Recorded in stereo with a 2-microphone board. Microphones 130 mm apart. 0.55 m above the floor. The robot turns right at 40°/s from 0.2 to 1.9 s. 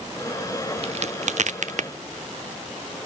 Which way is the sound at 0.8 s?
55° right (ahead or behind).